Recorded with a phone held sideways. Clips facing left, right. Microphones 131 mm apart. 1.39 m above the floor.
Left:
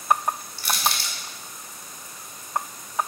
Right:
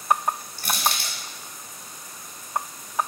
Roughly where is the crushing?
Right.